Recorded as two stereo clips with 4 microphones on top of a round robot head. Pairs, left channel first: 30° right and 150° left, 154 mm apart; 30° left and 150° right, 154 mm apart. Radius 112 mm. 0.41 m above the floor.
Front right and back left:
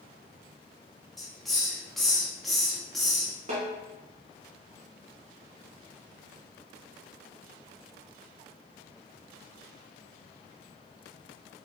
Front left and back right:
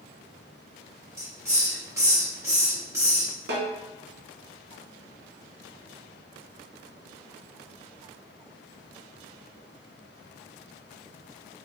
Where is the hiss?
120° right, 1.3 m.